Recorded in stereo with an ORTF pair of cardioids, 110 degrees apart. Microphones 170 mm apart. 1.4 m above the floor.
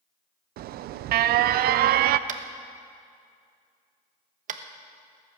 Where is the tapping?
55° right, 1.1 m.